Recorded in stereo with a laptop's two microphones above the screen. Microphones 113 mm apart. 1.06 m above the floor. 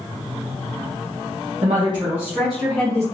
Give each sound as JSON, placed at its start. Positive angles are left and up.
{"t": 1.6, "sound": "a woman speaking", "side_deg": -60, "distance_m": 0.9}